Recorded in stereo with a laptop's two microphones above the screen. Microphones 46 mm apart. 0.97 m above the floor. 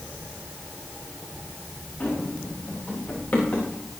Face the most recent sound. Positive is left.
turn(degrees=35)  # may be behind; listen again after turning